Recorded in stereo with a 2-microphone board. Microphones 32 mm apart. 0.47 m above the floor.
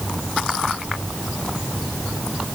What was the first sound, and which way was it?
Only background noise.